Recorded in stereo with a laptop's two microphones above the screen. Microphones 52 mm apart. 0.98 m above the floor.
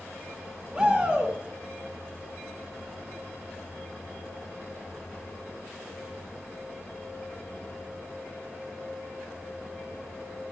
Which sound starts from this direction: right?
A shout, at 0.7 s.